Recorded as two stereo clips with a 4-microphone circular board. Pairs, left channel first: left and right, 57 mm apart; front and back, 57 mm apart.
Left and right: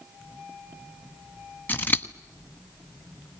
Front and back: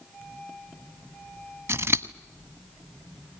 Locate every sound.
1.7 s scissors: 145° left, 1.1 m